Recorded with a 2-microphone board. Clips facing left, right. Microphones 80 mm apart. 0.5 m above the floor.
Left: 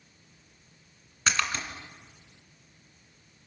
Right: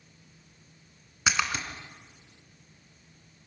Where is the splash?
10° right (ahead or behind), 2.5 m.